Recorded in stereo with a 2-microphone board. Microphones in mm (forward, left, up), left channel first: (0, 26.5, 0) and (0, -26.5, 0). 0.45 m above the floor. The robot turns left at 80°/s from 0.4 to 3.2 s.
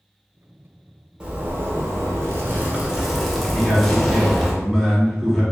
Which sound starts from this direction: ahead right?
A zipper, at 1.2 s.